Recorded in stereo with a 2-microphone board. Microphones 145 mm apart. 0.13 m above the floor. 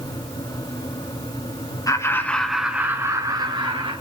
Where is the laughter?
25° left (ahead or behind), 1.2 m; by 3.9 s 40° right (ahead or behind), 1.8 m.